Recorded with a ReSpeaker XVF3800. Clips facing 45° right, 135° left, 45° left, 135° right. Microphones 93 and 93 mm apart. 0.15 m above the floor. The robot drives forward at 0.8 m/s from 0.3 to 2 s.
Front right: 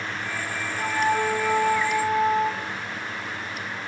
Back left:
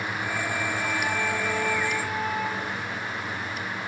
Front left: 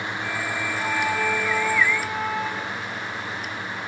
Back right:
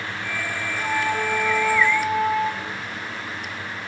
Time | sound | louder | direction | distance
0.8 | a flute | front right 4 dB, back right 2 dB | 95° right | 7 m